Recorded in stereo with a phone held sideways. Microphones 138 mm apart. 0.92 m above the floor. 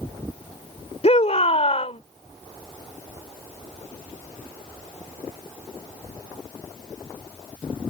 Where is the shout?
50° left (ahead or behind).